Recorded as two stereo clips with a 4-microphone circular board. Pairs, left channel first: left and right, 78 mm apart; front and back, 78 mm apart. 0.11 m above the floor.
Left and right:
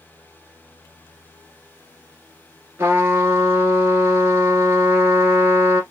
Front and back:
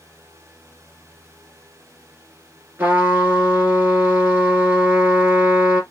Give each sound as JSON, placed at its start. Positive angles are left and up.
{"t": 2.8, "sound": "a trumpet", "azimuth_deg": -125, "distance_m": 1.2}